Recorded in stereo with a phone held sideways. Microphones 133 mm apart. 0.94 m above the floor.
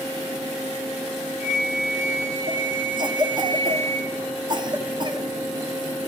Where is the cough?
35° right (ahead or behind), 0.5 m.